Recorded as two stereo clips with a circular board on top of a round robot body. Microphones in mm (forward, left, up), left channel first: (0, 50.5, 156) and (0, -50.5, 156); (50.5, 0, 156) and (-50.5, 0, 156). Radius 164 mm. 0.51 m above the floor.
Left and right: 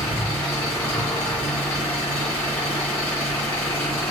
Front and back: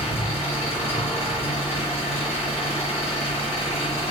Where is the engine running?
20° left, 2.5 m.